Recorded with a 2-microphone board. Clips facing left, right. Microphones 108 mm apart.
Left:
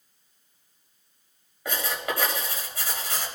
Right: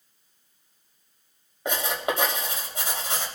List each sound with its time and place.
1.6 s writing: 25° right (ahead or behind), 3 m